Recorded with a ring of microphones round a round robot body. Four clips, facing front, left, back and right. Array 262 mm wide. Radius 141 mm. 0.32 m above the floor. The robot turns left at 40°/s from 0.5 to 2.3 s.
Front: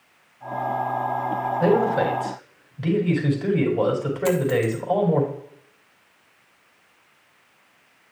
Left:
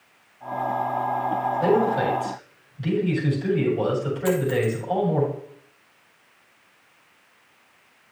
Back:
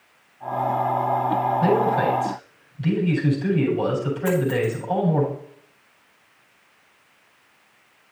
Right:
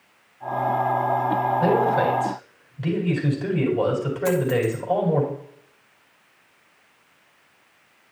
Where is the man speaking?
5° left, 4 m; by 5.2 s 20° right, 4 m.